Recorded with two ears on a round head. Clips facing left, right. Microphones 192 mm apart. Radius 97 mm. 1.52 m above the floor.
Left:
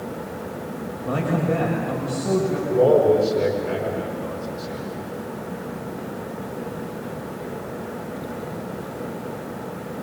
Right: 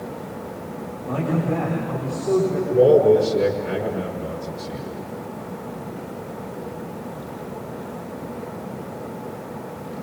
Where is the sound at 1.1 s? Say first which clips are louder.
Left 1 dB; 65° left (ahead or behind), 6.5 m.